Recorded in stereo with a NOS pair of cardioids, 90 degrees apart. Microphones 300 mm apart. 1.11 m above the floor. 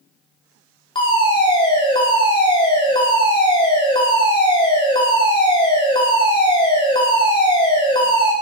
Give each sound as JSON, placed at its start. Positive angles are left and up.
{"t": 0.9, "sound": "a fire alarm", "azimuth_deg": 15, "distance_m": 5.5}